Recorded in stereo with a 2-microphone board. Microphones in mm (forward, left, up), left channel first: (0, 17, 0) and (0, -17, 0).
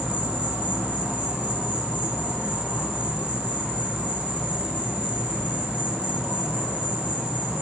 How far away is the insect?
About 4.5 m.